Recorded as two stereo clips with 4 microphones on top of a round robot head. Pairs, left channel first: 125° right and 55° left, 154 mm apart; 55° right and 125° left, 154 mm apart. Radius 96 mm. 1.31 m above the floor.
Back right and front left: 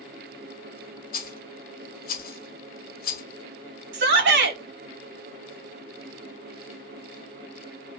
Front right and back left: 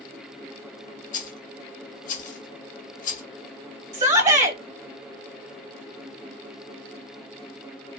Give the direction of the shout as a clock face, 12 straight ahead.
10 o'clock.